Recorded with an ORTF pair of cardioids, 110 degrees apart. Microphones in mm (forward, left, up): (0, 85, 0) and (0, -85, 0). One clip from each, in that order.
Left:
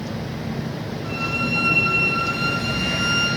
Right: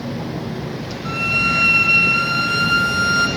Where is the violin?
40° right, 0.6 m.